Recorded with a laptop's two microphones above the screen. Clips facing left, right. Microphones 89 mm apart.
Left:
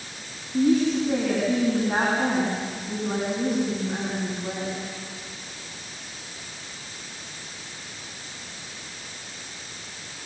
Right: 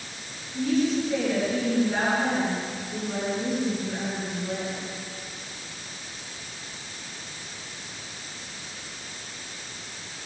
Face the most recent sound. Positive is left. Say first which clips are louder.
# left 4 dB
turn(degrees=60)  # may be behind; listen again after turning